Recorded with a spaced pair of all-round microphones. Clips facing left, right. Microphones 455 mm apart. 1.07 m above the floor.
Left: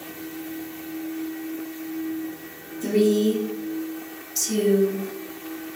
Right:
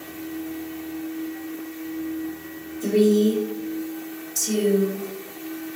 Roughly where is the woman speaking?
Centre.